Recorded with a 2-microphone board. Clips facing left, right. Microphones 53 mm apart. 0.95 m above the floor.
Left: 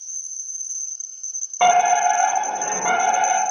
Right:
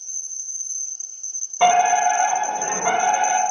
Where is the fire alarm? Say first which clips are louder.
Even; 20° left (ahead or behind), 2.5 m.